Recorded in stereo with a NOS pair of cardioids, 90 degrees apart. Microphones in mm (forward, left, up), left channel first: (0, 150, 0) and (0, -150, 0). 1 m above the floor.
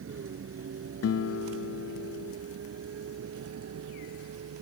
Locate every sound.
0.0 s a vehicle: 45° right; by 4.6 s 55° right
1.0 s a guitar: 55° left